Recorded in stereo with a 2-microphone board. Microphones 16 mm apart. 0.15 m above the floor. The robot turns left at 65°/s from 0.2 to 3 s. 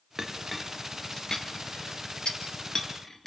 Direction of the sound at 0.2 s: 25° right (ahead or behind).